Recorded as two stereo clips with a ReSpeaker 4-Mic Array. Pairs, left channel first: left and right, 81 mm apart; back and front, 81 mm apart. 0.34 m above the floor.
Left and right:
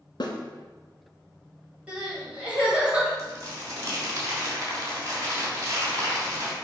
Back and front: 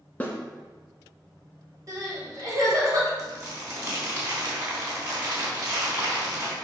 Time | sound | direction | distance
0.2 | a snare drum | 110° left | 1.1 m
1.9 | crying | 20° right | 2 m
3.2 | crumpling | 45° right | 2.5 m